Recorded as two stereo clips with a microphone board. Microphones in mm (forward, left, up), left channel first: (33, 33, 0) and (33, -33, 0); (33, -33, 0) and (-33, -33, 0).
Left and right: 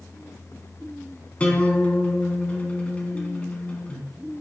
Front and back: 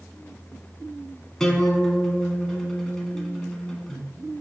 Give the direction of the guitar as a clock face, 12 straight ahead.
10 o'clock.